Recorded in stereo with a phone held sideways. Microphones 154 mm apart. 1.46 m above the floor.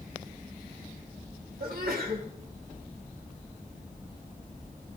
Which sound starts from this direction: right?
A sneeze, at 1.6 s.